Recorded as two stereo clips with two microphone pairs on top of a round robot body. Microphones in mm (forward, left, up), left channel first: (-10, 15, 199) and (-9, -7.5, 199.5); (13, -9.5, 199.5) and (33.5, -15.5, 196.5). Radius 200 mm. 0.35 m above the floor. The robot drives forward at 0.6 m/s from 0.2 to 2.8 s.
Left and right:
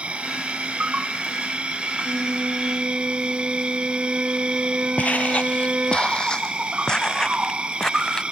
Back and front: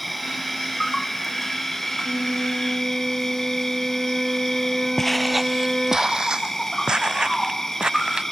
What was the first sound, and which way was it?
An insect, 110° right.